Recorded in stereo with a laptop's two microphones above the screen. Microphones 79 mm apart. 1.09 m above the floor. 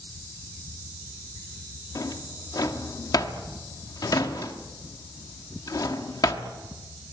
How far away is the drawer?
About 1.3 m.